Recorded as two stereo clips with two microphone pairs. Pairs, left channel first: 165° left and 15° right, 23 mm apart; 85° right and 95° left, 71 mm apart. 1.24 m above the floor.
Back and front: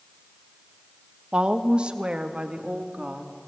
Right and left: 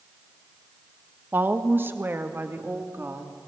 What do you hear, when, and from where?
1.3 s a woman speaking: 35° left, 1.4 m